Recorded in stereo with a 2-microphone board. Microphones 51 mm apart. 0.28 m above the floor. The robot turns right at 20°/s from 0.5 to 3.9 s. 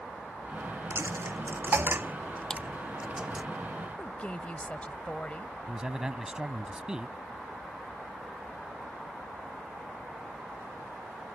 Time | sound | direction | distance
0.9 | a dropped coin | 60° right (ahead or behind) | ?
2.5 | a clap | 15° left (ahead or behind) | ?
4.0 | a woman speaking | 25° left (ahead or behind) | ?
5.7 | a man speaking | 15° right (ahead or behind) | ?